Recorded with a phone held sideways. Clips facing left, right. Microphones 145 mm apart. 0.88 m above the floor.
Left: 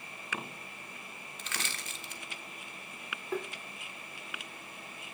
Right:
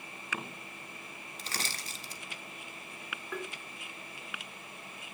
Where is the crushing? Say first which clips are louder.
Right 1 dB; 35° right (ahead or behind), 1.5 m.